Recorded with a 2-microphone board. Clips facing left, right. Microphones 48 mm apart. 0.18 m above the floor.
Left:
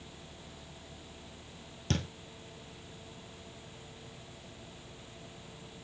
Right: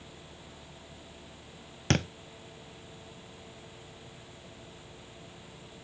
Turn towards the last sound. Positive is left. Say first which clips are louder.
# right 6 dB
turn(degrees=-65)  # may be behind; listen again after turning